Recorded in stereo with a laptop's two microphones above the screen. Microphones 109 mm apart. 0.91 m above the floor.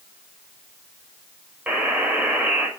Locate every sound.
1.7 s a buzzer: 10° right (ahead or behind), 5 m